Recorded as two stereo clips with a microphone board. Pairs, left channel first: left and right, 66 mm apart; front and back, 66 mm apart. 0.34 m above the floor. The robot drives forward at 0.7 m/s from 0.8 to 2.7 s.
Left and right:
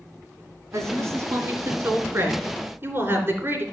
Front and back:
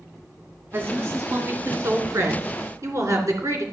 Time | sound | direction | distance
0.7 | a woman speaking | 125° right | 2.5 m